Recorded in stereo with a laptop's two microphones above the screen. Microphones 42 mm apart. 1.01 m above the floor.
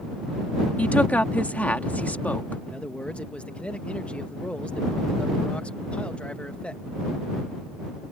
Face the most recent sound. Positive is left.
turn(degrees=25)  # may be behind; listen again after turning